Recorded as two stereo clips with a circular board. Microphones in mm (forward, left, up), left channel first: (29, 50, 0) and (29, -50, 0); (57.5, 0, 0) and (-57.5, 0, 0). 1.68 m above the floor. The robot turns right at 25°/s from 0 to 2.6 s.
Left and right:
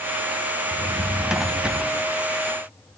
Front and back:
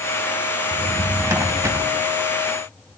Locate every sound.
0.7 s a drawer: straight behind, 0.8 m; by 3.0 s 135° right, 0.8 m